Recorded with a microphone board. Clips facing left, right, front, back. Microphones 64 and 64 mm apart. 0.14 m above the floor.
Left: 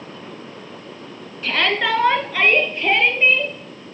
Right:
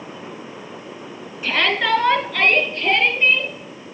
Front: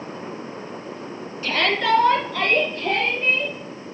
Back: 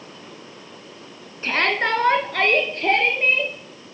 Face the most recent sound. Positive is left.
turn(degrees=160)